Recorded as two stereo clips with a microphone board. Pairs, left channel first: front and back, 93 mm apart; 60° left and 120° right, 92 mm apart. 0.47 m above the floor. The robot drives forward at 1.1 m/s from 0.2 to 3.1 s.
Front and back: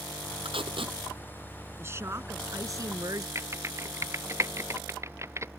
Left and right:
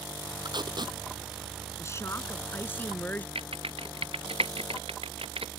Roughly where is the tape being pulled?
Behind.